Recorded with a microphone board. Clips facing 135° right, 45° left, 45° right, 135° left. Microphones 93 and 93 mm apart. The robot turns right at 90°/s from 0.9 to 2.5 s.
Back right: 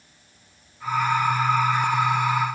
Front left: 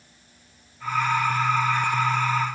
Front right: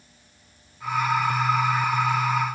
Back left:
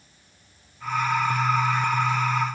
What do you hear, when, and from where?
Only background noise.